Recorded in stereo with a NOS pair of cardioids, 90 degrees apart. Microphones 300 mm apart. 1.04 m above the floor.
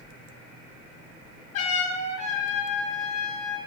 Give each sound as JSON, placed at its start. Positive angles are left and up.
{"t": 1.5, "sound": "a trumpet", "azimuth_deg": 55, "distance_m": 4.0}